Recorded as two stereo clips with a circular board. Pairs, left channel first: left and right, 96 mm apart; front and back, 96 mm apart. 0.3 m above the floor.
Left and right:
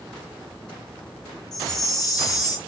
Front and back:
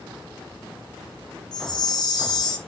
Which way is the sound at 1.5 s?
40° left.